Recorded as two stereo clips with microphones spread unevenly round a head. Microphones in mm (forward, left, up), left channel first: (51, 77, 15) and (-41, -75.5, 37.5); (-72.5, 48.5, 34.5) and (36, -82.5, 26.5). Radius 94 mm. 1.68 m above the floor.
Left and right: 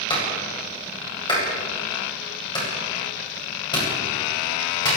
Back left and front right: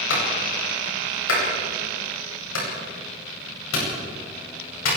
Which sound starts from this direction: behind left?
A clap, at 0.1 s.